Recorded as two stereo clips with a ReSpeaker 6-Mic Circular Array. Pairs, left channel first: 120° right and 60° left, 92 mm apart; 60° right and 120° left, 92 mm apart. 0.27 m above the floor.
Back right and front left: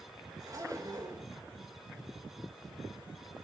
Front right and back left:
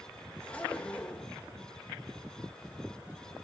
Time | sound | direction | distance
0.4 | a zipper | 15° left | 3.5 m